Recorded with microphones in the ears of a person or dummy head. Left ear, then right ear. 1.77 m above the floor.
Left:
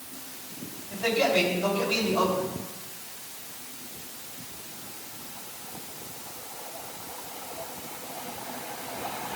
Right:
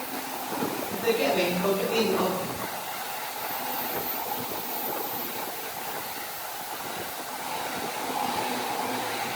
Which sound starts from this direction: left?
A man speaking, at 0.9 s.